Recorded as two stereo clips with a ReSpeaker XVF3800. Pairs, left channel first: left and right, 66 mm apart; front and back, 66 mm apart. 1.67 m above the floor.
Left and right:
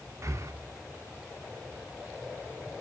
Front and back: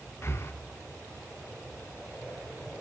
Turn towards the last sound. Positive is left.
turn(degrees=-50)